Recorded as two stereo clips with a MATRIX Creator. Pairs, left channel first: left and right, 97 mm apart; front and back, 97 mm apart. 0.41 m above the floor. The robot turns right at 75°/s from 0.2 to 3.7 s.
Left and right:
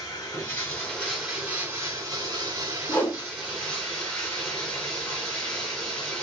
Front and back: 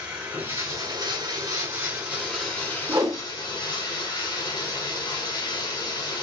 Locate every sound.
0.0 s running water: 110° left, 1.2 m; by 6.2 s 10° left, 1.2 m
2.9 s a whoosh: 145° left, 0.7 m; by 3.2 s 170° left, 0.7 m